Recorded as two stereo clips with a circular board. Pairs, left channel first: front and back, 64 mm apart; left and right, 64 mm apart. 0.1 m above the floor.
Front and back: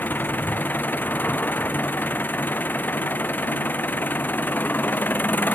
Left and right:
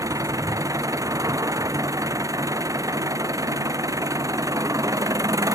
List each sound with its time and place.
0.0 s an engine running: 60° right